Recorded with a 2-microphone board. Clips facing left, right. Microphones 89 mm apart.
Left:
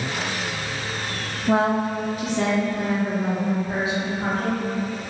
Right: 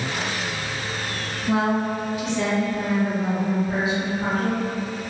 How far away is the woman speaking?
About 0.5 m.